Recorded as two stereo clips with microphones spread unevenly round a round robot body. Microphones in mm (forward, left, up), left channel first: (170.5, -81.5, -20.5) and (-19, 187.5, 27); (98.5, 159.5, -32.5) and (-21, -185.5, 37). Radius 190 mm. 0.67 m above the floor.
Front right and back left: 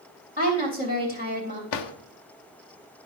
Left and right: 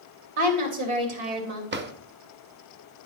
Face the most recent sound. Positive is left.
turn(degrees=-45)